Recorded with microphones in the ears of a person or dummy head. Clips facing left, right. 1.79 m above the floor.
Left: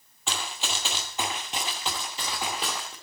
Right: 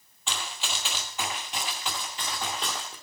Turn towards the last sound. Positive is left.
turn(degrees=0)  # may be behind; listen again after turning